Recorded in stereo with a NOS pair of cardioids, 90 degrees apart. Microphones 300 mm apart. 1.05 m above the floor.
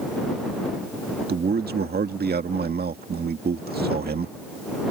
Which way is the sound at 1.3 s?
35° right.